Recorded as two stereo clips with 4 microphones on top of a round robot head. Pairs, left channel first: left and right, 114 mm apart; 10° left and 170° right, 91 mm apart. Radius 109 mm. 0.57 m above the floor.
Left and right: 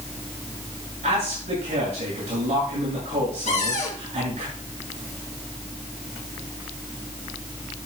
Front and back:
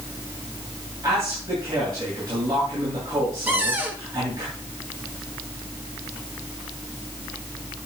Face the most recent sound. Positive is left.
turn(degrees=120)